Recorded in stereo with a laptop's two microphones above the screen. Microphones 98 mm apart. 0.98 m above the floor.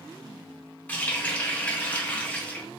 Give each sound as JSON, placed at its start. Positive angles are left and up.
{"t": 0.9, "sound": "a running tap", "side_deg": 15, "distance_m": 0.7}